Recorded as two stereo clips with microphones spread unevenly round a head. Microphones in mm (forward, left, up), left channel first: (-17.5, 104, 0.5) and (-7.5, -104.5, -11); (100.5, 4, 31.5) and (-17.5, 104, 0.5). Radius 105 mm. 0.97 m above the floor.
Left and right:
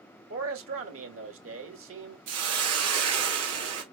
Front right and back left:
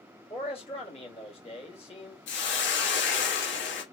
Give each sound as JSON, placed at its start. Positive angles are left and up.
{"t": 0.3, "sound": "a man speaking", "azimuth_deg": -105, "distance_m": 2.0}
{"t": 2.3, "sound": "a hiss", "azimuth_deg": -70, "distance_m": 1.8}